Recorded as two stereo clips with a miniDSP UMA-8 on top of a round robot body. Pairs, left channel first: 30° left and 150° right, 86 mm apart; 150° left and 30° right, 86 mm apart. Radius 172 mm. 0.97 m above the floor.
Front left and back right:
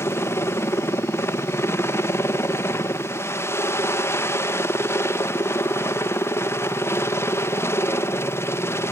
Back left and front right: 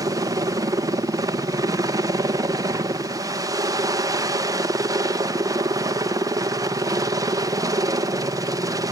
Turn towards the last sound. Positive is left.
turn(degrees=-15)